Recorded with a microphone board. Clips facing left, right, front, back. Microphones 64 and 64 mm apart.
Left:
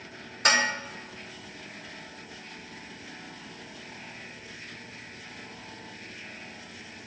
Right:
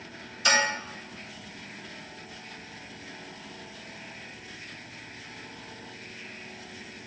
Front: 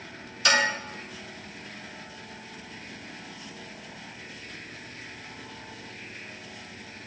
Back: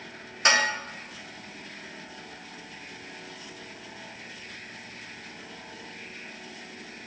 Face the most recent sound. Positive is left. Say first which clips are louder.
# even, even
turn(degrees=125)